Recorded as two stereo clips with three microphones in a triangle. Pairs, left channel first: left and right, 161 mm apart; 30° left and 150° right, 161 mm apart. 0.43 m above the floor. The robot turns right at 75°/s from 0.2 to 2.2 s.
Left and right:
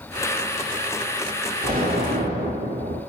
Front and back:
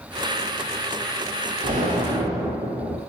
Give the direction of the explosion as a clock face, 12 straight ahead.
4 o'clock.